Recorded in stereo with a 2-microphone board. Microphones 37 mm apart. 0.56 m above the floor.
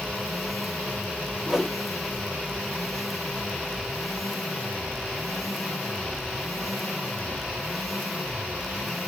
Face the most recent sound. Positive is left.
turn(degrees=-10)  # may be behind; listen again after turning